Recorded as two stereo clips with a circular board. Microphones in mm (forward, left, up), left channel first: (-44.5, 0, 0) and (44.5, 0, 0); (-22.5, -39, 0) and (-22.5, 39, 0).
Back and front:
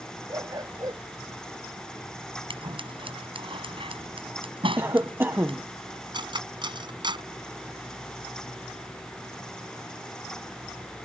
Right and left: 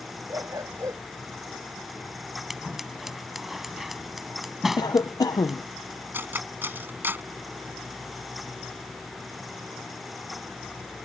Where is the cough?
65° right.